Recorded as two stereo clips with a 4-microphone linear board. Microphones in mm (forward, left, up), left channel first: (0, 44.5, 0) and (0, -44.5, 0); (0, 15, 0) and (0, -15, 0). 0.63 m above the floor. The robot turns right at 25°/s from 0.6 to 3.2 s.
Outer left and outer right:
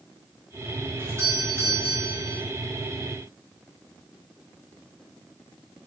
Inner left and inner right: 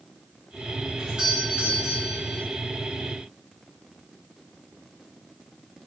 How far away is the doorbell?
About 5 m.